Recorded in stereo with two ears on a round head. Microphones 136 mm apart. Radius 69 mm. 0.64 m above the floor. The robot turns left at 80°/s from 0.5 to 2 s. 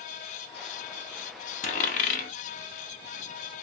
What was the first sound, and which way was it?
A dropped coin, 50° left (ahead or behind).